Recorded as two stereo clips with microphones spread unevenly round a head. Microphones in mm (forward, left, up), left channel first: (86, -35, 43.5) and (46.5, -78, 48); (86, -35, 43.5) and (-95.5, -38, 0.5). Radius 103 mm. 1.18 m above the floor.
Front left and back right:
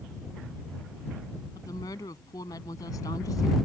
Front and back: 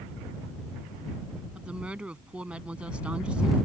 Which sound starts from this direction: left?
A woman speaking, at 1.6 s.